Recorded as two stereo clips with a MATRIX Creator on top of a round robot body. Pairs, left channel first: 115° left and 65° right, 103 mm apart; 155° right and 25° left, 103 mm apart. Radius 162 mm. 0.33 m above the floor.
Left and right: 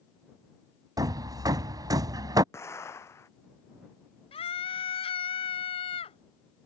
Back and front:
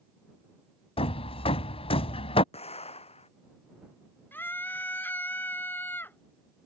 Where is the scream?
130° left.